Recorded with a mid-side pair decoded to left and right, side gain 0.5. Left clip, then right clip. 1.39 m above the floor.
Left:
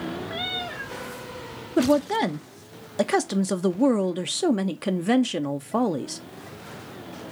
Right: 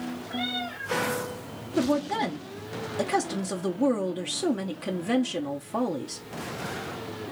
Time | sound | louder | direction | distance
0.3 | a cat meowing | even | 55° left | 1.9 m
1.8 | a woman speaking | left 5 dB | 40° left | 0.6 m